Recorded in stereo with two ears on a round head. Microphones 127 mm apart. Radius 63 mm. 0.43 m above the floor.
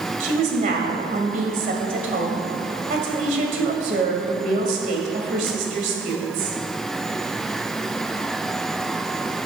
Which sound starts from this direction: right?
A woman speaking, at 0.2 s.